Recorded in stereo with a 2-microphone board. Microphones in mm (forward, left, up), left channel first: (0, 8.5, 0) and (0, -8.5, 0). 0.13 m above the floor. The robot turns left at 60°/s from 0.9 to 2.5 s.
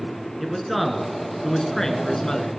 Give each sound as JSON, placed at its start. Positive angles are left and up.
{"t": 0.4, "sound": "a man speaking", "azimuth_deg": 175, "distance_m": 1.2}